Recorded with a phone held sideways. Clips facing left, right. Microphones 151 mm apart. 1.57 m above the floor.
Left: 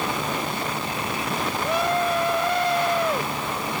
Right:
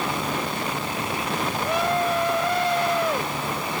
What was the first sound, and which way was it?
Only background noise.